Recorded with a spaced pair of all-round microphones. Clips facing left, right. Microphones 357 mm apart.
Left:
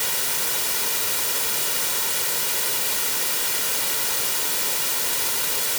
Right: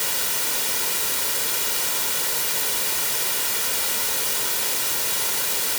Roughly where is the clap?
I don't hear a clap.